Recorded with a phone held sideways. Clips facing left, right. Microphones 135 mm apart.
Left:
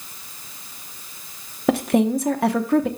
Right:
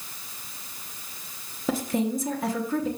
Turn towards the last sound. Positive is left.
turn(degrees=70)  # may be behind; listen again after turning